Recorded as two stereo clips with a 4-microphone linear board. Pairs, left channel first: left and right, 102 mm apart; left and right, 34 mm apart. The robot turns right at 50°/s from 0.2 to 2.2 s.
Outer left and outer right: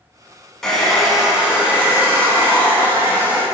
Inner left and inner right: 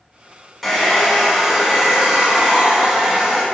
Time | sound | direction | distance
0.6 | a hair dryer | 5° left (ahead or behind) | 0.6 m